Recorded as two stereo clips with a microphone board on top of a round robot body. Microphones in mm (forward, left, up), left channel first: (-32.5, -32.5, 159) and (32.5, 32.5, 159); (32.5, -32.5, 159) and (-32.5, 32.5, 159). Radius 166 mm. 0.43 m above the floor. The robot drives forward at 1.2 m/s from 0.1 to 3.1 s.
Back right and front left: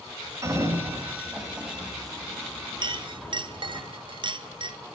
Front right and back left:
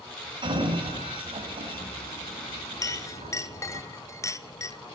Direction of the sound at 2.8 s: 10° left.